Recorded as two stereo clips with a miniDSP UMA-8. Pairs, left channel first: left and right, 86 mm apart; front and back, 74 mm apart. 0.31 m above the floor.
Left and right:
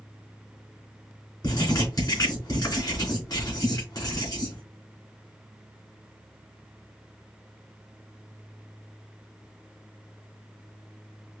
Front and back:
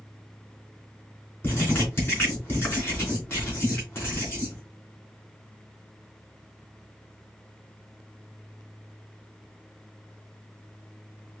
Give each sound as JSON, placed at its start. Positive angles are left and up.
{"t": 1.4, "sound": "writing", "azimuth_deg": 50, "distance_m": 2.5}